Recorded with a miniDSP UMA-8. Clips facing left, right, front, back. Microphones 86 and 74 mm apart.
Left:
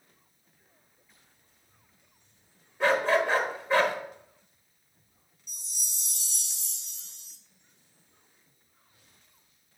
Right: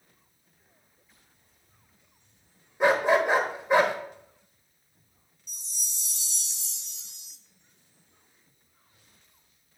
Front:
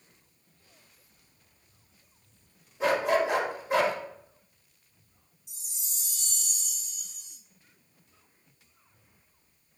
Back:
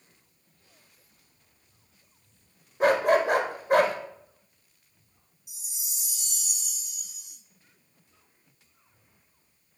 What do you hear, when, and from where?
2.8 s a dog barking: 160° right, 1.0 m
5.5 s a chime: 105° left, 1.0 m